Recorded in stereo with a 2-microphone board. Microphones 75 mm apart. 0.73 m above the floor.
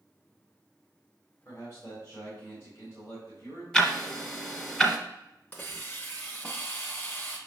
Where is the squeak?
I don't hear a squeak.